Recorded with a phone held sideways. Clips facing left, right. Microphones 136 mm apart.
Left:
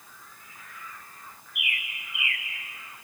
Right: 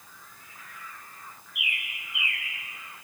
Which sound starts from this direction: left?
A bird, at 1.6 s.